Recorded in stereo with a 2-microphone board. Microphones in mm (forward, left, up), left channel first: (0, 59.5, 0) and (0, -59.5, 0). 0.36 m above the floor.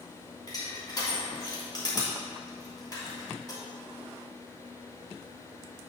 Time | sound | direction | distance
0.5 | crushing | 35° left (ahead or behind) | 2.5 m